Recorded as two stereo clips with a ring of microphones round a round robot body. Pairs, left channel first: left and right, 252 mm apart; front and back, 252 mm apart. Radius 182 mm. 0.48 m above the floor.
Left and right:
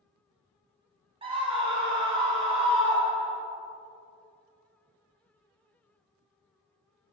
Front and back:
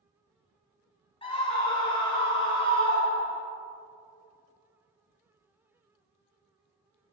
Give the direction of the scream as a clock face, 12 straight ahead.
2 o'clock.